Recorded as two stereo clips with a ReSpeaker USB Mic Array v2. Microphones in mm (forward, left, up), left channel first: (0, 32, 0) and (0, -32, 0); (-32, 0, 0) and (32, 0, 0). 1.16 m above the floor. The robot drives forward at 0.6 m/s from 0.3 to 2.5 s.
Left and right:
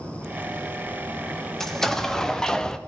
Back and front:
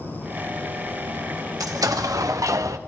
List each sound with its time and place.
1.6 s an explosion: 5° left, 1.1 m; by 2.8 s 10° left, 0.6 m